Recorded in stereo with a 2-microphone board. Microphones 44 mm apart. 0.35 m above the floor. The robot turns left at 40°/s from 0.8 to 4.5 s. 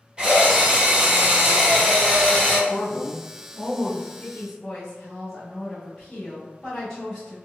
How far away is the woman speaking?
About 1.2 m.